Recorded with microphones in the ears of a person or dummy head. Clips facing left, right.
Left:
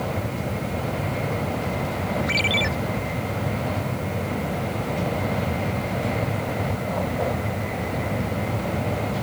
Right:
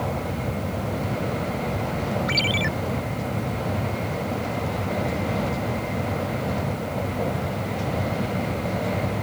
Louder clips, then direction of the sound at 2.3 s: Even; 10° right (ahead or behind).